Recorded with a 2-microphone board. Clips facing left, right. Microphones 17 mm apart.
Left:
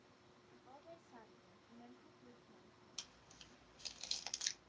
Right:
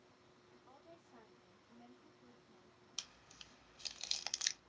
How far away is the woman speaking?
About 1.9 m.